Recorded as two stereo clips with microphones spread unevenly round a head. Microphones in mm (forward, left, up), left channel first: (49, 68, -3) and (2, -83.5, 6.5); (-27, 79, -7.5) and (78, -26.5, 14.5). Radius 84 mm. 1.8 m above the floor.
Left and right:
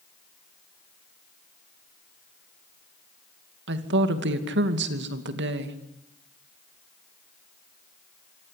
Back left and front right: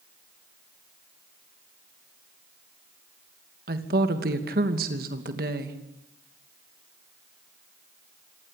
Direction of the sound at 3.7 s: 90° right.